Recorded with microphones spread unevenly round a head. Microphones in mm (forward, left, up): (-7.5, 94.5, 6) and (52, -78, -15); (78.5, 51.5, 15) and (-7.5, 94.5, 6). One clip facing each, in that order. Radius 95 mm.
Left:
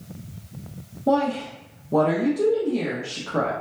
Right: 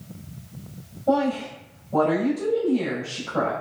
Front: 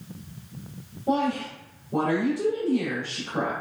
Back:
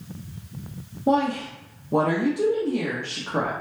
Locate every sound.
1.1 s a woman speaking: 120° left, 0.8 m